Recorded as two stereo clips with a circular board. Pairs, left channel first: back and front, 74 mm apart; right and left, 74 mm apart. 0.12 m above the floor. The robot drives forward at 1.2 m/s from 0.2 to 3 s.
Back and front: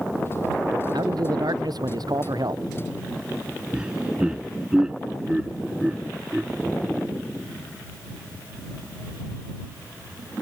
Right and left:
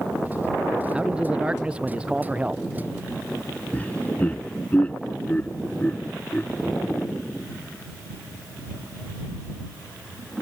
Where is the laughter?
60° right.